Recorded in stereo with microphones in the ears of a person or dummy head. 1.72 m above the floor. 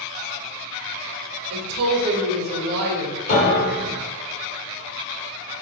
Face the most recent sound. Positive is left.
turn(degrees=35)  # may be behind; listen again after turning